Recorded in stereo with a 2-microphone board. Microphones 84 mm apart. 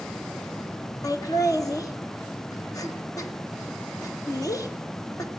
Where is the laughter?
45° left (ahead or behind), 1.2 m.